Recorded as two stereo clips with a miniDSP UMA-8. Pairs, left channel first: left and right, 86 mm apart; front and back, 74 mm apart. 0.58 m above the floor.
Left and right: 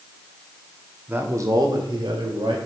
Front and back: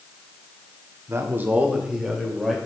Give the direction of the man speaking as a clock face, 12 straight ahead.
5 o'clock.